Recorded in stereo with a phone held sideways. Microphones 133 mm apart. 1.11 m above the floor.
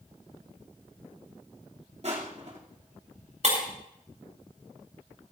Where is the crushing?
50° right (ahead or behind), 2.5 m.